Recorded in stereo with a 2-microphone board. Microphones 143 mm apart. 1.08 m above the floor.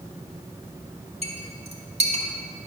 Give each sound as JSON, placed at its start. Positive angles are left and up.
{"t": 1.2, "sound": "a clink", "side_deg": -45, "distance_m": 2.5}